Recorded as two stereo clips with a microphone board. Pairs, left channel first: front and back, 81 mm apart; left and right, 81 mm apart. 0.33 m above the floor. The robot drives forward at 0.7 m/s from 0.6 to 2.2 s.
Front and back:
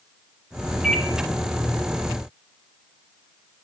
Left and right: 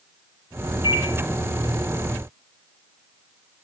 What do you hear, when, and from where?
0.8 s a microwave: 95° left, 2.5 m